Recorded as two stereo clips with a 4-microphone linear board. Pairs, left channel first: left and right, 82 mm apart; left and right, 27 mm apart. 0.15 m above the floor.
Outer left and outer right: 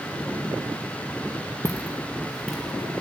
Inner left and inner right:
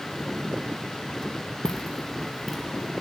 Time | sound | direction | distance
1.6 | footsteps | 25° left (ahead or behind) | 1.1 m